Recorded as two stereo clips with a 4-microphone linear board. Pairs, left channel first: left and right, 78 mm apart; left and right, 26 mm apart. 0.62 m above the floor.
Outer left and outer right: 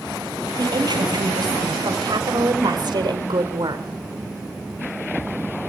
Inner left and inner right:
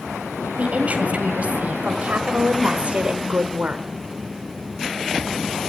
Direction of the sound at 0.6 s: 65° right (ahead or behind).